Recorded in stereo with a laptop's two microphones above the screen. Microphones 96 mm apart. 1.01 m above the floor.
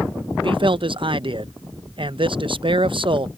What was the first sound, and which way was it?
A man speaking, 60° right (ahead or behind).